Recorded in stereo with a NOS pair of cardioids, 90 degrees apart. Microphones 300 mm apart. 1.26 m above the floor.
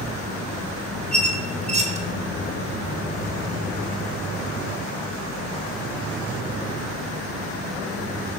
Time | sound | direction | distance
1.1 | a squeak | 20° right | 1.3 m